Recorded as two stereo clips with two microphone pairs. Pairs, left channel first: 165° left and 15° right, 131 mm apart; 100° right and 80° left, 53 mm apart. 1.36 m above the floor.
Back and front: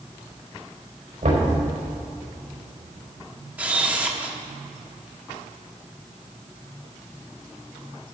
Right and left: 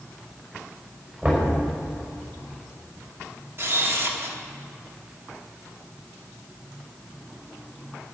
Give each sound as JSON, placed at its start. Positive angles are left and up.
{"t": 1.2, "sound": "knocking", "azimuth_deg": 20, "distance_m": 4.5}
{"t": 3.6, "sound": "a camera shutter", "azimuth_deg": 60, "distance_m": 1.2}